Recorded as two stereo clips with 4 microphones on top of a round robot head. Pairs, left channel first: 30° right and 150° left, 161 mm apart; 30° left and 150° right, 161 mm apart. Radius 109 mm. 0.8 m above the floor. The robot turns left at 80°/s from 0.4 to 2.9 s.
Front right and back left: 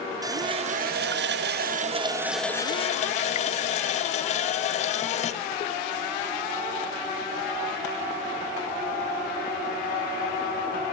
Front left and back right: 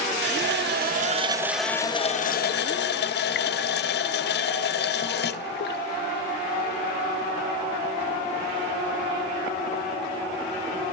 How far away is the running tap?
About 0.5 m.